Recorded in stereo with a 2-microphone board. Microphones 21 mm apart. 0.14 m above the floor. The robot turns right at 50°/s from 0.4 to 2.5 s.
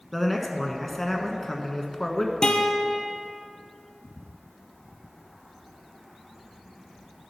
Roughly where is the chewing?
No chewing in this recording.